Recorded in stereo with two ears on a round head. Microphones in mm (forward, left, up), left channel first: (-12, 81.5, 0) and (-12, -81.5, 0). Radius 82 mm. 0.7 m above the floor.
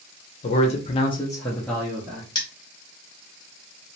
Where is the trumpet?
No trumpet in this recording.